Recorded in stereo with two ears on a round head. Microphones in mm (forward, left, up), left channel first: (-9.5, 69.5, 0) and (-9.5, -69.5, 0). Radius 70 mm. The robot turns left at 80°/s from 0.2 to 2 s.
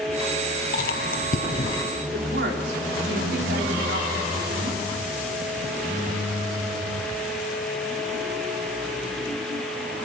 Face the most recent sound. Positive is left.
turn(degrees=-70)  # may be behind; listen again after turning